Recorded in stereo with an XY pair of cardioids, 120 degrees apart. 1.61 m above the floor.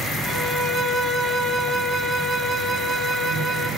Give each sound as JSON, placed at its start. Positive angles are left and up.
{"t": 0.2, "sound": "a violin", "azimuth_deg": -40, "distance_m": 4.5}